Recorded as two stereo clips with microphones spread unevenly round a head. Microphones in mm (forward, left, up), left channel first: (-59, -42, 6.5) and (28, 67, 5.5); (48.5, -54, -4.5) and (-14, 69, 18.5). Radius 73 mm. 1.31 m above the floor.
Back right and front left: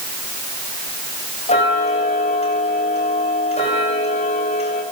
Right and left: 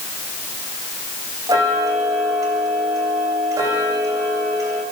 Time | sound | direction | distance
1.5 | ticking | 175° right | 9.5 m